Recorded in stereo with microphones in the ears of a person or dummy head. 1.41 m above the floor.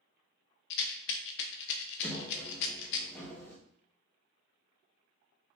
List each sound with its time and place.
0.7 s a rattle: 70° left (ahead or behind), 0.6 m
2.0 s a sliding door: 10° left (ahead or behind), 0.9 m